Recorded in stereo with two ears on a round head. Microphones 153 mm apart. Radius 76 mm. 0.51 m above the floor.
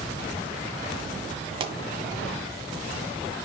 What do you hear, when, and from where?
1.6 s a pop: 30° right (ahead or behind), 1.1 m